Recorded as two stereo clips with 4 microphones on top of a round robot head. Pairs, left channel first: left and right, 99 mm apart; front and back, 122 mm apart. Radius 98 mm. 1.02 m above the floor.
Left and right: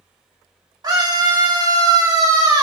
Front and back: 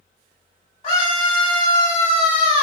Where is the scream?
40° right, 3.5 m.